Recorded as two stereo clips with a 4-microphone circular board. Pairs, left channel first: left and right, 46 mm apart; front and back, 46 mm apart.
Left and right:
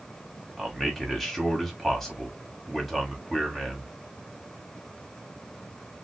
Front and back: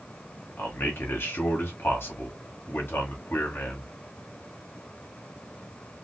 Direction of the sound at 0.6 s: Straight ahead.